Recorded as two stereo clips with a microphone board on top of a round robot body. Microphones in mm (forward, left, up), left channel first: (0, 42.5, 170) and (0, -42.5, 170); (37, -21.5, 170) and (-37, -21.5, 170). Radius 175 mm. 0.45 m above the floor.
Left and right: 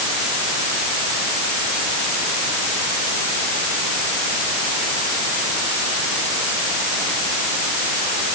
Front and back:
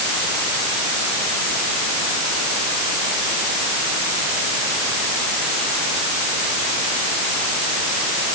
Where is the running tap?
No running tap in this recording.